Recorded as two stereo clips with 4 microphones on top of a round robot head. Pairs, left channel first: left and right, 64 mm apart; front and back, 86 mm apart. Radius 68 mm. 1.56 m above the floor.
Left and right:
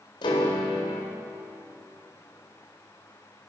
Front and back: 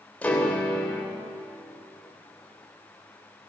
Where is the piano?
75° left, 3.5 m.